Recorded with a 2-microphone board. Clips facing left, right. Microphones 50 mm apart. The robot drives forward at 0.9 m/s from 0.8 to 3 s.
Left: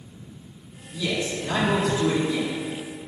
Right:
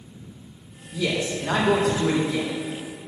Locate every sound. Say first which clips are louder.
0.9 s a man speaking: right 2 dB; 80° right, 1.8 m; by 2.5 s 55° right (ahead or behind), 2 m